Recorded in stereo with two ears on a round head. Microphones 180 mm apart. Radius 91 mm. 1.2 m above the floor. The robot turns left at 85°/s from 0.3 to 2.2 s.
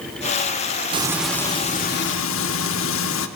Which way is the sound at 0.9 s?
150° right.